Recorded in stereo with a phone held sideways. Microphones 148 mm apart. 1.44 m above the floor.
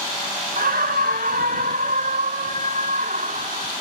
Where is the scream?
75° right (ahead or behind); by 3.7 s 60° right (ahead or behind).